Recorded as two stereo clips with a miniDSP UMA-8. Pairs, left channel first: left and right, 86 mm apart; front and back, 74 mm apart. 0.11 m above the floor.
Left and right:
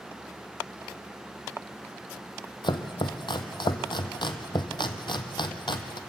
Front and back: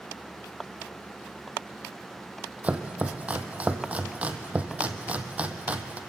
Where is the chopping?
110° left, 1.3 m.